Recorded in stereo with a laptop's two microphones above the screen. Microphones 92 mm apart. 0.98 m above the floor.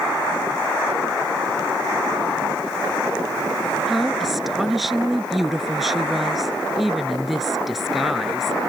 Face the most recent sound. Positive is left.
turn(degrees=0)  # may be behind; listen again after turning